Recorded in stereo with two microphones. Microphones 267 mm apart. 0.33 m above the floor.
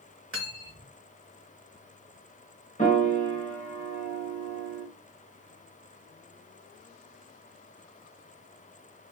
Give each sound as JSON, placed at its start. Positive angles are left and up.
{"t": 0.3, "sound": "cutlery clinking", "side_deg": -50, "distance_m": 1.1}
{"t": 2.8, "sound": "a piano", "side_deg": 30, "distance_m": 1.1}